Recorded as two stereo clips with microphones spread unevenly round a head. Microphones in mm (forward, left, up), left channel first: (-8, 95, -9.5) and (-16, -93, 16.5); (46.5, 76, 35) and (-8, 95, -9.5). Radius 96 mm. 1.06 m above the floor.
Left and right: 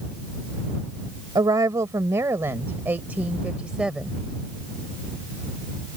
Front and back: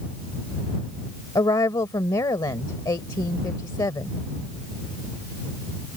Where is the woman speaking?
20° right; by 4.2 s 5° right.